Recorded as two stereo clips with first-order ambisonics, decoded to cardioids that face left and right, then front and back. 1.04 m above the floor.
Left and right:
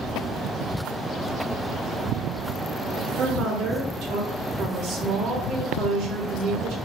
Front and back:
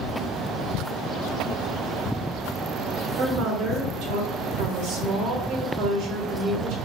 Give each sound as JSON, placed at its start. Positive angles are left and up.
{"t": 3.2, "sound": "a woman speaking", "azimuth_deg": -130, "distance_m": 0.9}